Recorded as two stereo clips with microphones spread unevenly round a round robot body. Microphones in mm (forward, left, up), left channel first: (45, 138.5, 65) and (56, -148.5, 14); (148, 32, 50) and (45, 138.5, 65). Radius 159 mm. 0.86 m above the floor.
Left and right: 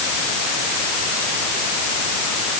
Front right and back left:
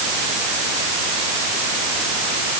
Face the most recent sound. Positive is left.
No sound to turn to.